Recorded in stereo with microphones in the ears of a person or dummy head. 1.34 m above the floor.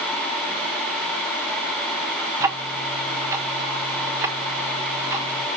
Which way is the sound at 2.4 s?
15° right (ahead or behind).